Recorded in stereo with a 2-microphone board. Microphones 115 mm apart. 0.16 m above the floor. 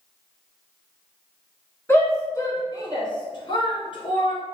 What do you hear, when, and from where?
1.9 s a shout: 20° left (ahead or behind), 1.3 m; by 4.3 s 50° left (ahead or behind), 1.8 m